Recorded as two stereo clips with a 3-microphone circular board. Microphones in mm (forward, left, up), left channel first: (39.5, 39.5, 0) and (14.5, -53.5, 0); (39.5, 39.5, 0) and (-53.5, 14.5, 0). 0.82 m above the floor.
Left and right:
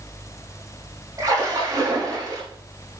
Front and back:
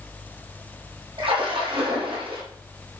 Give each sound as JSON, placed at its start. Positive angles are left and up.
{"t": 1.2, "sound": "a splash", "azimuth_deg": -155, "distance_m": 6.5}